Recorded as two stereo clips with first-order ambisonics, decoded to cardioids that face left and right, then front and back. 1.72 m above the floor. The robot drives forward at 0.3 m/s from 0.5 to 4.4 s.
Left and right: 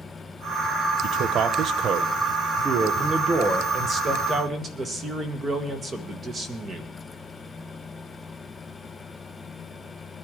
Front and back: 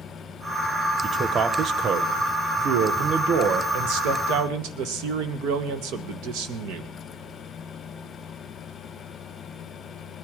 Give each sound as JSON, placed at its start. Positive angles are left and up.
{"t": 1.0, "sound": "a man speaking", "azimuth_deg": -120, "distance_m": 0.7}